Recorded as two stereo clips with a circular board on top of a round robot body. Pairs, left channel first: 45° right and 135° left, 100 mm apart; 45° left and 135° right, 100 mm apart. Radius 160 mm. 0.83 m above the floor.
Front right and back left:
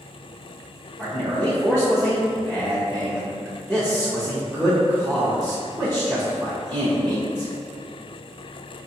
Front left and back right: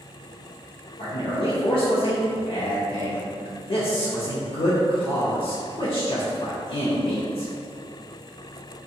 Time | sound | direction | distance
1.0 | a man speaking | 30° left | 0.8 m